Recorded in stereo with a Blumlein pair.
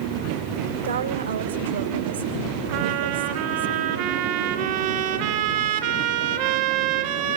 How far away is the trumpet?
About 3.5 m.